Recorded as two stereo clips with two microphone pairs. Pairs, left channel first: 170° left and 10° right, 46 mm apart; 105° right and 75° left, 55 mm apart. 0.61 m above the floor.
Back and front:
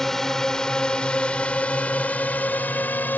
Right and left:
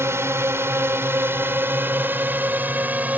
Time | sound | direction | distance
0.0 | a drone | 85° left | ?